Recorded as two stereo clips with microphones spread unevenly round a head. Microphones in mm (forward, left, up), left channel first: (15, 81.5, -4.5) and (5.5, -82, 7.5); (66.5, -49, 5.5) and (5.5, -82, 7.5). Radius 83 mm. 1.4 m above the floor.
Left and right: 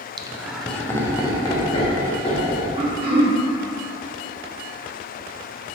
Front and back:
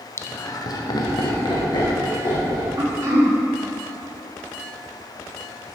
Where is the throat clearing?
135° right, 1.1 m.